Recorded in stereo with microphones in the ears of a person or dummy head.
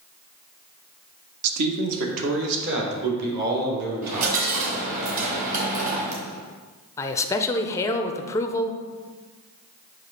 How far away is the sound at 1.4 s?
About 1.1 m.